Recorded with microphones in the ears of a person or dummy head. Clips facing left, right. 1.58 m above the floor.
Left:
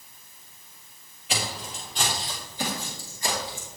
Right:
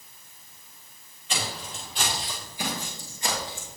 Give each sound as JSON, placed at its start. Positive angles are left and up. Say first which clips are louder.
{"t": 1.3, "sound": "footsteps", "louder": "left 1 dB", "side_deg": 10, "distance_m": 2.0}